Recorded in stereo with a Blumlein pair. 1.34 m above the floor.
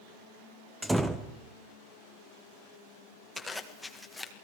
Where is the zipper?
5° left, 1.5 m.